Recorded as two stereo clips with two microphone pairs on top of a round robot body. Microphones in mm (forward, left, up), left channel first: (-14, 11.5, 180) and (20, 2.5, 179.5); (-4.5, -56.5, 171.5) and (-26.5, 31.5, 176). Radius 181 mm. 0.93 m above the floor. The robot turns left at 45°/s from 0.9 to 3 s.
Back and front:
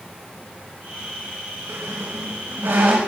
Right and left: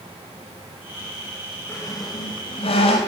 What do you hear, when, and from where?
1.7 s a squeak: 5° right, 1.1 m; by 3.0 s 65° right, 1.1 m